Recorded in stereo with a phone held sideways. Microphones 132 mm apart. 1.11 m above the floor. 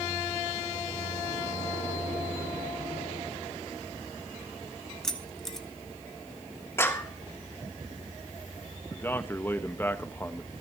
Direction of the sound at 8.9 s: 15° left (ahead or behind).